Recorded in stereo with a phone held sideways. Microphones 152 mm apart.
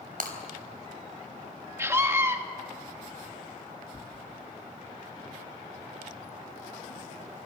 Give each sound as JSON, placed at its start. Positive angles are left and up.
{"t": 0.2, "sound": "breaking glass", "side_deg": -85, "distance_m": 3.5}
{"t": 1.8, "sound": "a scream", "side_deg": -20, "distance_m": 2.5}
{"t": 3.9, "sound": "tearing paper", "side_deg": -5, "distance_m": 1.3}